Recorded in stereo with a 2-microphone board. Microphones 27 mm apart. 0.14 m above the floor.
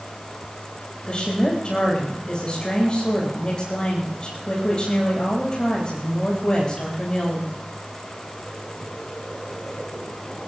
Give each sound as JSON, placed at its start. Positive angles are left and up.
{"t": 1.1, "sound": "a woman speaking", "side_deg": 35, "distance_m": 10.0}